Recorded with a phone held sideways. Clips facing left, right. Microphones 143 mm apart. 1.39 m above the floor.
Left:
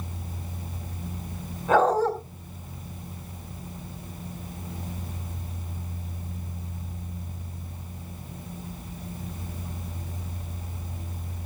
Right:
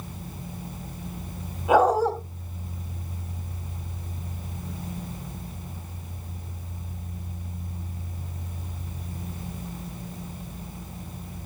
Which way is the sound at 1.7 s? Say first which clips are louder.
Right 1 dB; 10° right (ahead or behind).